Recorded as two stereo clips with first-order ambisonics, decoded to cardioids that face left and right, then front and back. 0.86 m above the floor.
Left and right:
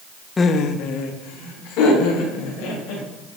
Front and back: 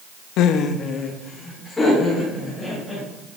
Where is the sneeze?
No sneeze in this recording.